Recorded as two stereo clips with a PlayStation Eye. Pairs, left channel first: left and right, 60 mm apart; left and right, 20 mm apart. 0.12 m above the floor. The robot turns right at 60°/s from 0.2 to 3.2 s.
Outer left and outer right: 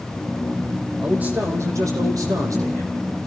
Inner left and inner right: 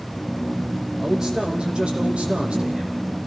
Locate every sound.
1.0 s a man speaking: 165° right, 5.5 m; by 2.9 s 50° right, 5.5 m